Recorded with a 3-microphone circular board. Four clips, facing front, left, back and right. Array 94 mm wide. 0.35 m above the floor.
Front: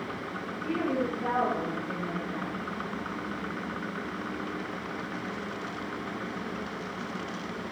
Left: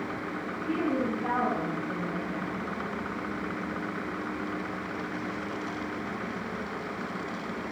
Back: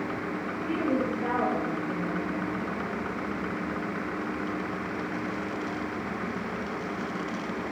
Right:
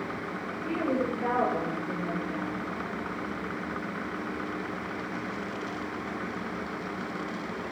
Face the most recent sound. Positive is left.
turn(degrees=-100)